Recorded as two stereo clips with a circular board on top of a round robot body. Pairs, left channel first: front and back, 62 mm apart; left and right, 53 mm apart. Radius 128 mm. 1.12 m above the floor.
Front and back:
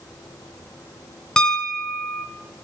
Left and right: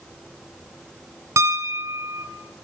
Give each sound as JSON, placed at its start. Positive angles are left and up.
{"t": 1.4, "sound": "a piano", "azimuth_deg": -80, "distance_m": 0.5}